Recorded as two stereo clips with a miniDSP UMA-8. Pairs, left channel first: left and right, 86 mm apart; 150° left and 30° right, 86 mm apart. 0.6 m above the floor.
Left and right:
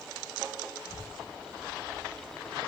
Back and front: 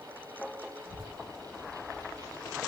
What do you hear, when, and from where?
0.8 s a child speaking: 160° left, 3 m; by 2.6 s 155° left, 2 m